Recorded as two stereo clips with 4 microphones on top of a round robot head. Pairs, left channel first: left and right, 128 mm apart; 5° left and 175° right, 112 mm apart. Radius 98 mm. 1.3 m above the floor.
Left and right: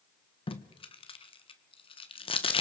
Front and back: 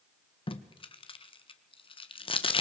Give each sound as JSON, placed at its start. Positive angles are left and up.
{"t": 0.5, "sound": "tape being pulled", "azimuth_deg": 45, "distance_m": 1.5}